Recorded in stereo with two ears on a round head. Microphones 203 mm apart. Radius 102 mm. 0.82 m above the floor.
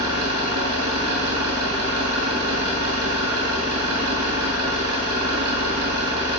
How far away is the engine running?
About 5 m.